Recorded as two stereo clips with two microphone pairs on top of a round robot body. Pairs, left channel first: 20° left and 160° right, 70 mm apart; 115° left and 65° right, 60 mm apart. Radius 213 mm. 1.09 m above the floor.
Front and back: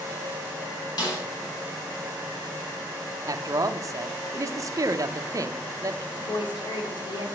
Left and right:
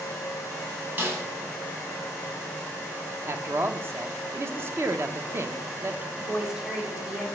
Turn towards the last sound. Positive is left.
turn(degrees=10)